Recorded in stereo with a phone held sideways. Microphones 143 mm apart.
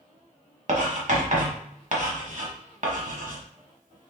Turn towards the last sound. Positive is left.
turn(degrees=-60)  # may be behind; listen again after turning